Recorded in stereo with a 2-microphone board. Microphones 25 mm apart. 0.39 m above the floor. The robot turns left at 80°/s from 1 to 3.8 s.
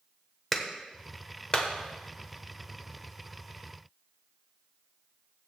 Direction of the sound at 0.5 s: 10° left (ahead or behind).